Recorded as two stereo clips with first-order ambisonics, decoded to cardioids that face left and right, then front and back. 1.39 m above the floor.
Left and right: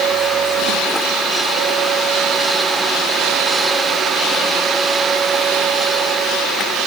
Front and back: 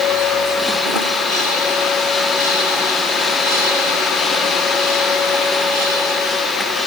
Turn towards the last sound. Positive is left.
No sound to turn to.